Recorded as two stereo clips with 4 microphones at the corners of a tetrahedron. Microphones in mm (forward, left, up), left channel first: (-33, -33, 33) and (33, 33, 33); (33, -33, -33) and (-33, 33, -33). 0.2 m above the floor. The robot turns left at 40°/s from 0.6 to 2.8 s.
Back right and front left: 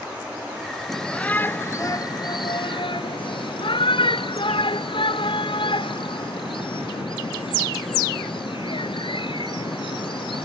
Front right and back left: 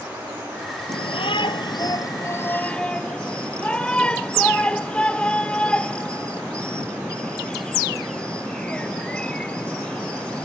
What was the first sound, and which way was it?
A shout, 45° right.